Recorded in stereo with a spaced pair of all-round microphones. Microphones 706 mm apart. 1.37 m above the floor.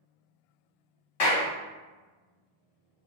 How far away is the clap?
About 1.0 m.